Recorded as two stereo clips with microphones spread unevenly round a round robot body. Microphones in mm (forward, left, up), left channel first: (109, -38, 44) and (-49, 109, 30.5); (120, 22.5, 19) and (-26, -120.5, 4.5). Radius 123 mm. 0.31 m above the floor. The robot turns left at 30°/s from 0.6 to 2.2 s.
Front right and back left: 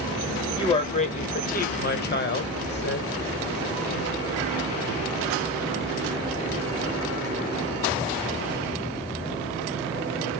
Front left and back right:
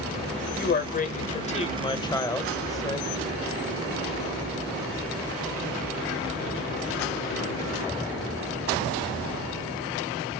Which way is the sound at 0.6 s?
20° left.